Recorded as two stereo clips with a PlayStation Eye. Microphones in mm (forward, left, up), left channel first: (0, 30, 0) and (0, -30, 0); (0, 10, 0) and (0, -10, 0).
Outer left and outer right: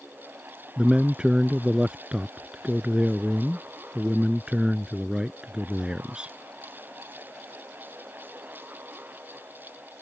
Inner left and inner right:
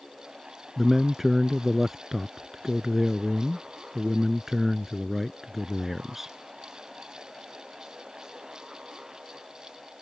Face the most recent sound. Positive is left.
turn(degrees=-15)  # may be behind; listen again after turning